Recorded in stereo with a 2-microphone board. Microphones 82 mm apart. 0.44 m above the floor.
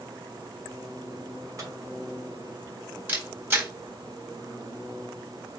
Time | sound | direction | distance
1.6 | a microwave | 45° right (ahead or behind) | 1.9 m
3.1 | a camera shutter | 25° right (ahead or behind) | 1.5 m